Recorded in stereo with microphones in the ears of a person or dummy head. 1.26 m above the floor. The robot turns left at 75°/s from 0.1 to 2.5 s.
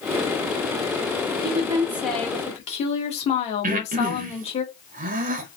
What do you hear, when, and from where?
1.4 s a woman speaking: 135° right, 1.1 m; by 4.6 s 145° left, 1.1 m
3.6 s breathing: 40° right (ahead or behind), 0.6 m